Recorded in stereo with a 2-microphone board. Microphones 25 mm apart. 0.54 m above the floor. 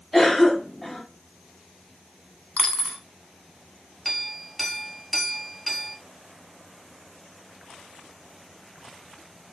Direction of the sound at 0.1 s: 10° left (ahead or behind).